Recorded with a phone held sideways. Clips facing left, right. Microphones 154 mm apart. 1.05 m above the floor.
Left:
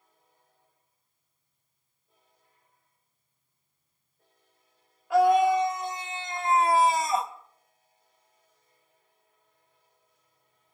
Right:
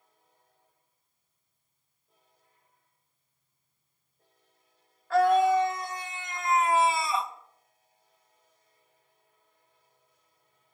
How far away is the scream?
About 1.9 m.